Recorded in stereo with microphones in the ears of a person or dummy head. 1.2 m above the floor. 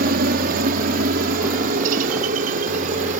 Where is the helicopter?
50° right (ahead or behind).